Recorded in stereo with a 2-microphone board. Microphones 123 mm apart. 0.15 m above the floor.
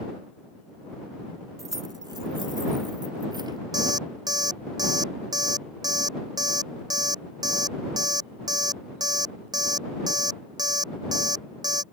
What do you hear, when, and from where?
1.6 s keys jangling: 30° right (ahead or behind); by 3.6 s 35° right (ahead or behind)
3.7 s an alarm clock: 30° right (ahead or behind)